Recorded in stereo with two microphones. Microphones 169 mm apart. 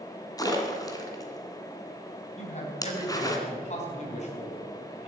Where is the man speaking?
45° left (ahead or behind), 3.5 m.